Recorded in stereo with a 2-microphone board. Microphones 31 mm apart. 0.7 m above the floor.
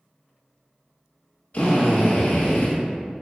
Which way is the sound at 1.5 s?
45° left (ahead or behind).